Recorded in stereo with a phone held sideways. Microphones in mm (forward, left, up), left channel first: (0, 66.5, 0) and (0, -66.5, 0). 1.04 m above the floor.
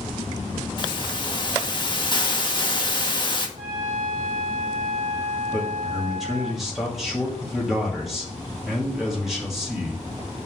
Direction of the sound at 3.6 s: 75° right (ahead or behind).